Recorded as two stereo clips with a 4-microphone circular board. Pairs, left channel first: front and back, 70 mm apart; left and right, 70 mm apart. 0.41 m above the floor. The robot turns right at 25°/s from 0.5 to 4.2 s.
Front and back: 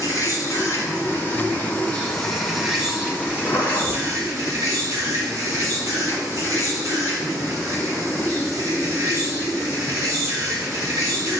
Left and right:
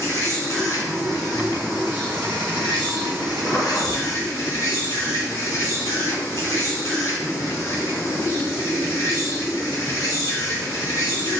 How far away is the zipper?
About 3.5 m.